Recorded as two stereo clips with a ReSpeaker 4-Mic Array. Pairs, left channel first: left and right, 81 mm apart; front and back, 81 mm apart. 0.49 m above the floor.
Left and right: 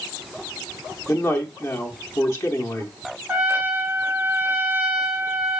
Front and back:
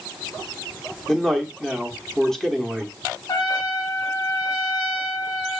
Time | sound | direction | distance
1.1 | a man speaking | 80° left | 0.8 m
3.3 | a trumpet | 20° right | 1.2 m